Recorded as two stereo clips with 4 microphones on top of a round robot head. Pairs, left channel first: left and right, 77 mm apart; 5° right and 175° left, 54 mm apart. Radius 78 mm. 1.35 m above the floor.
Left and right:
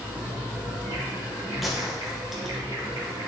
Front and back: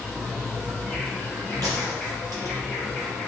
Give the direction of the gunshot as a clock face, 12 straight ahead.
6 o'clock.